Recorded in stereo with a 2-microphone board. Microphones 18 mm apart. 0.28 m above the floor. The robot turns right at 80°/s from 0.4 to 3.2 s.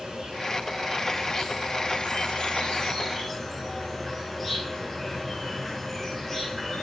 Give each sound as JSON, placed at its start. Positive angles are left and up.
{"t": 0.0, "sound": "an insect", "azimuth_deg": -50, "distance_m": 5.0}